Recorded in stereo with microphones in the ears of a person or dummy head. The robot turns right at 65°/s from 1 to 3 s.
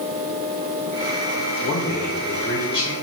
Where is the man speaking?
75° left, 1.0 m; by 2.9 s 165° left, 1.0 m.